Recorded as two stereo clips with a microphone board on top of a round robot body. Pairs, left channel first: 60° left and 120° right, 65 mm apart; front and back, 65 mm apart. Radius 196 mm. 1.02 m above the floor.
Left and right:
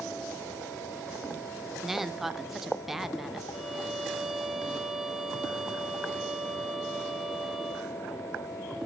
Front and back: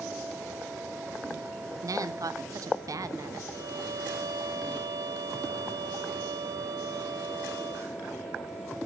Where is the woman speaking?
155° left, 0.8 m.